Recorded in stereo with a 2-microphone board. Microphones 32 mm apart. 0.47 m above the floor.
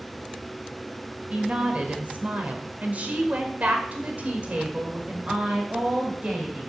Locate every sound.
1.3 s a woman speaking: 45° right (ahead or behind), 2.5 m; by 6.7 s 35° right (ahead or behind), 3 m